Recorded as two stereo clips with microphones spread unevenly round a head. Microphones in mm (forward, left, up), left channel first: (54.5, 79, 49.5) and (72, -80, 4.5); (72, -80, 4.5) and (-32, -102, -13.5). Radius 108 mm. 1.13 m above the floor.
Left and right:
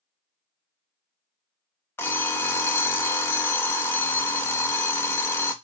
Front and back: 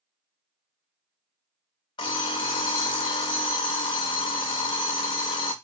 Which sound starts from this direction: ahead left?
An alarm clock, at 2.0 s.